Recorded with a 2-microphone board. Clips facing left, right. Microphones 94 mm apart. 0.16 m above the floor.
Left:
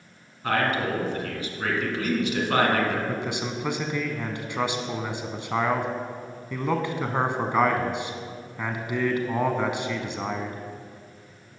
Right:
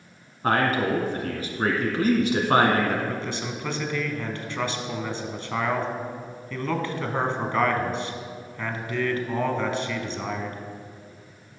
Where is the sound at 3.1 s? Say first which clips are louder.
Left 1 dB; 15° left (ahead or behind), 1.1 m.